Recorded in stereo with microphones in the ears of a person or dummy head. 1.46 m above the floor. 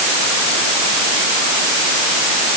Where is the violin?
I don't hear a violin.